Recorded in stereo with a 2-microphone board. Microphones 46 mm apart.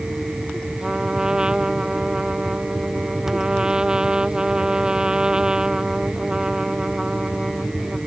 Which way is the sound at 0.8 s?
15° right (ahead or behind).